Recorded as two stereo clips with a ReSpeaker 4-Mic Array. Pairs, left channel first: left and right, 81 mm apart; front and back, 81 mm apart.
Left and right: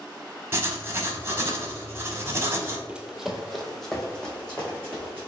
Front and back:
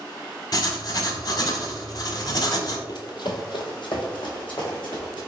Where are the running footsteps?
15° right, 0.5 m; by 5.3 s 15° left, 1.6 m.